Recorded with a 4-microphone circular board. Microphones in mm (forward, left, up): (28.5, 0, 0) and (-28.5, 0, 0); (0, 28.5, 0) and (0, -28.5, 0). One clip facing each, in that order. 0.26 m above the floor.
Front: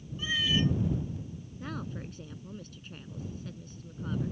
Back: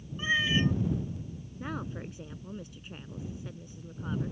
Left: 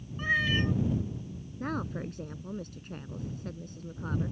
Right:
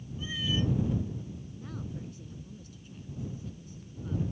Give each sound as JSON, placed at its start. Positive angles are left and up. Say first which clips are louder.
{"t": 0.2, "sound": "a cat meowing", "louder": "back 2 dB, left 5 dB", "azimuth_deg": 120}
{"t": 1.6, "sound": "a woman speaking", "louder": "back 2 dB, left 9 dB", "azimuth_deg": 105}